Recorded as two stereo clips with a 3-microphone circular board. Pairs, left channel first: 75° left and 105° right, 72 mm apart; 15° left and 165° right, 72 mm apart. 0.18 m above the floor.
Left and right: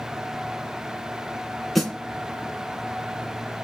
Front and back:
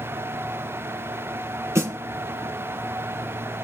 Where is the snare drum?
160° left, 1.8 m.